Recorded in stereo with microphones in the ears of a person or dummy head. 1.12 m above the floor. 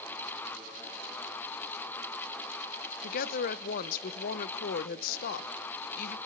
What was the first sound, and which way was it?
A woman speaking, 50° left (ahead or behind).